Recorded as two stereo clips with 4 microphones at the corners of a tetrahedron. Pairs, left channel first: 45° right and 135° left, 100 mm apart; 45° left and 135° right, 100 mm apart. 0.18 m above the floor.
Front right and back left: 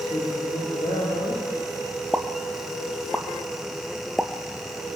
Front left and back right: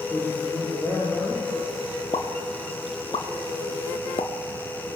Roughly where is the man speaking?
Ahead right.